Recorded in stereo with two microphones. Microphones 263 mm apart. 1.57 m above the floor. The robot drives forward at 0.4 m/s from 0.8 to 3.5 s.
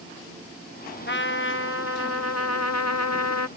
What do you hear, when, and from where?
1.1 s a trumpet: 45° left (ahead or behind); by 3.5 s 70° left (ahead or behind)